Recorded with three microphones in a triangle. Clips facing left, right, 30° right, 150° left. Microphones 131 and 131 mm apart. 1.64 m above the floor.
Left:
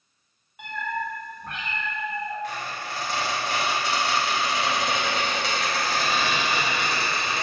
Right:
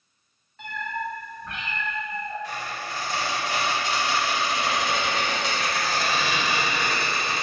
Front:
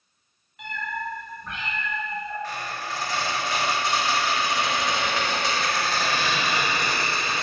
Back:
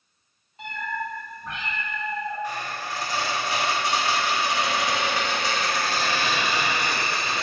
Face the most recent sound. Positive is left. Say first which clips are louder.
# left 1 dB, back 1 dB
turn(degrees=75)